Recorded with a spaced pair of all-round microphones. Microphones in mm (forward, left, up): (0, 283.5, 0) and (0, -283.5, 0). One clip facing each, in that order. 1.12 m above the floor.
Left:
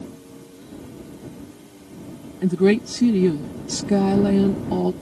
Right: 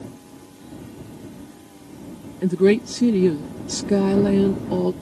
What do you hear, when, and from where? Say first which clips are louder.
2.4 s a woman speaking: right 1 dB; 10° left (ahead or behind)